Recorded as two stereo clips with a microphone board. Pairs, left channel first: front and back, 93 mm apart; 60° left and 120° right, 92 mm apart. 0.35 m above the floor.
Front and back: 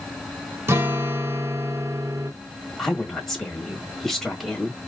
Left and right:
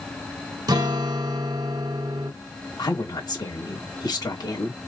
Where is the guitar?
130° right, 0.6 m.